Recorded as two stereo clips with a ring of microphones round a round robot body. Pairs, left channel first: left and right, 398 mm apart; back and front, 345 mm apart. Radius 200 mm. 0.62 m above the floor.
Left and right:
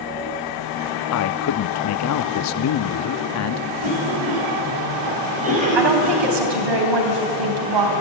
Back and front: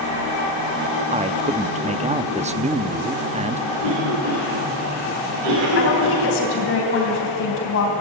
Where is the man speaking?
65° left, 0.7 m.